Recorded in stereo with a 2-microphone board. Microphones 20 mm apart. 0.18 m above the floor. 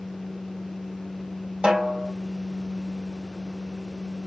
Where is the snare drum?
65° right (ahead or behind), 3.5 m.